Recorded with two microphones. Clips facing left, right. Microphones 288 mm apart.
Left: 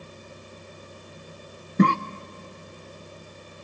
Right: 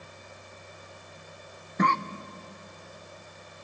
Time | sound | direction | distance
1.8 | a cough | 35° left (ahead or behind) | 0.6 m